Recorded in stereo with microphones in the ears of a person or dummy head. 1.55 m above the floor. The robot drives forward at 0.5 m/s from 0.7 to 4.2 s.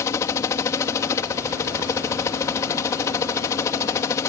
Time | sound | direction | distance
0.0 | a helicopter | 15° left (ahead or behind) | ?